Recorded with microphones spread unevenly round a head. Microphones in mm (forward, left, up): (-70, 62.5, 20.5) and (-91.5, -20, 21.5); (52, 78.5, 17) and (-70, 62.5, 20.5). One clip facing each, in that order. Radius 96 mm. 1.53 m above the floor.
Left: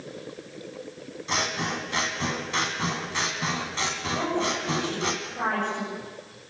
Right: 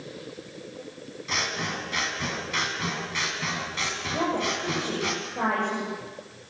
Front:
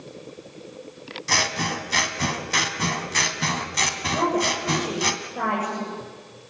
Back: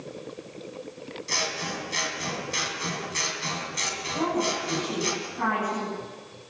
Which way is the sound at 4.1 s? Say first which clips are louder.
Right 1 dB, front 3 dB; 30° right.